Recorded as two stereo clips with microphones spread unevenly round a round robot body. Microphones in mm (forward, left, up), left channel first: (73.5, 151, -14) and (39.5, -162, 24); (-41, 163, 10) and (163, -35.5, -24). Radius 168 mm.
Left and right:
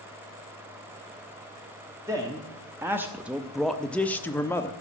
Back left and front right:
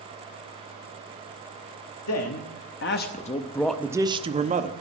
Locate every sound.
2.1 s a man speaking: straight behind, 1.0 m; by 4.7 s 5° left, 0.9 m